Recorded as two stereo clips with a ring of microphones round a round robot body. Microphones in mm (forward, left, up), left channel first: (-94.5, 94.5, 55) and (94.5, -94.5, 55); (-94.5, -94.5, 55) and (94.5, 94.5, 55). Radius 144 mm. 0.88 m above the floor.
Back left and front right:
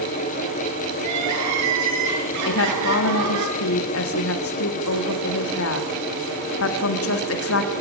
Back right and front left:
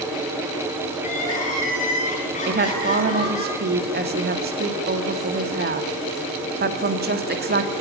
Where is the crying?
70° right, 8.5 m.